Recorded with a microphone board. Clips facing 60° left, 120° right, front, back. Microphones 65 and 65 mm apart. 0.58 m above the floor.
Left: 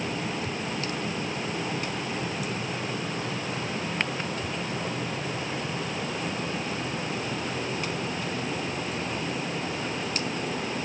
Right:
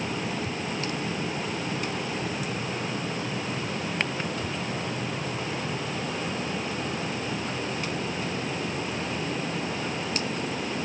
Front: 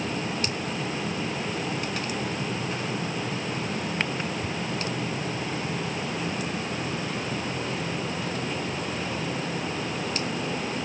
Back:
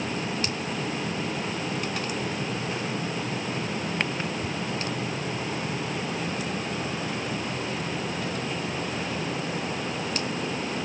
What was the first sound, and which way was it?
Only background noise.